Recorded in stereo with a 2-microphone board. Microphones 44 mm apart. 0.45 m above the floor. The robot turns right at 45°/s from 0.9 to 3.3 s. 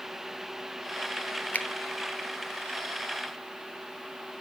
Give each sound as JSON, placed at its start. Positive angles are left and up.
{"t": 1.5, "sound": "a finger snap", "side_deg": 40, "distance_m": 1.1}